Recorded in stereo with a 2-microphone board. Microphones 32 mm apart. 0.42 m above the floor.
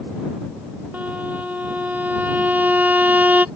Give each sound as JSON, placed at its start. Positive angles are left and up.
{"t": 0.9, "sound": "a violin", "side_deg": -65}